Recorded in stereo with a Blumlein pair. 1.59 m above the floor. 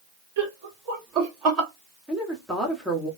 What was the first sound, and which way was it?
Laughter, 50° right.